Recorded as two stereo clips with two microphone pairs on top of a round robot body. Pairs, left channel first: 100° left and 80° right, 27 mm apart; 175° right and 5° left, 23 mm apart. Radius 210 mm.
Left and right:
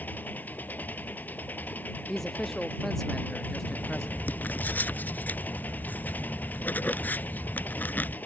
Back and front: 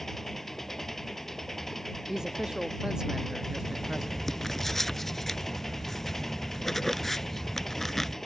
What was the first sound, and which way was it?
An engine running, 105° left.